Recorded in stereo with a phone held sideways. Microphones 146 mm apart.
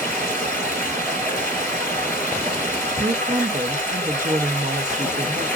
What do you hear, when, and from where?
0.0 s running water: 15° left (ahead or behind), 3.5 m
3.0 s a woman speaking: 55° right (ahead or behind), 0.7 m